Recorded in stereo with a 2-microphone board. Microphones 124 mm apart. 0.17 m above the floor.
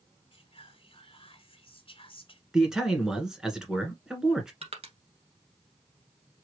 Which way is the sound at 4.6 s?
55° right (ahead or behind).